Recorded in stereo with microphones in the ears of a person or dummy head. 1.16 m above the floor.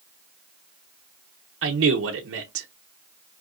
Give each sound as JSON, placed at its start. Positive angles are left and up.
{"t": 1.6, "sound": "a man speaking", "side_deg": -70, "distance_m": 0.7}